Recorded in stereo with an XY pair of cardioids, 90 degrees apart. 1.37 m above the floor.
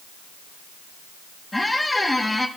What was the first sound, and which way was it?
A squeak, 15° left.